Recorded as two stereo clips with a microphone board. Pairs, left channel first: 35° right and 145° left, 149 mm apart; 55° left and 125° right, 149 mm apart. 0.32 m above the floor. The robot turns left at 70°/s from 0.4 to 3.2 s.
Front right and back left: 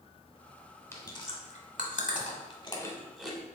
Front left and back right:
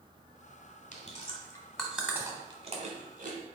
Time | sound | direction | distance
0.9 | chewing | 35° left | 0.8 m